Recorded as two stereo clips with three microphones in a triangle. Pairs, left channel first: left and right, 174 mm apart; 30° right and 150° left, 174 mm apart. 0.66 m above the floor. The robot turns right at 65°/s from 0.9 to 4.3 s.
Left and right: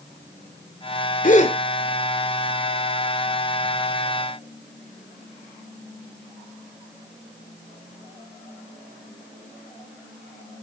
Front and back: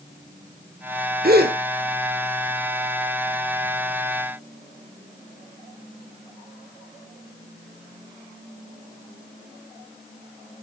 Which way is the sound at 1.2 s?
125° left.